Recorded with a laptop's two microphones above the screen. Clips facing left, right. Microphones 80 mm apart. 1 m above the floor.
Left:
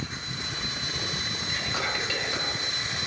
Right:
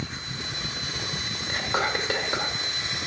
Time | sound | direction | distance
1.5 | whispering | 45° right (ahead or behind) | 2 m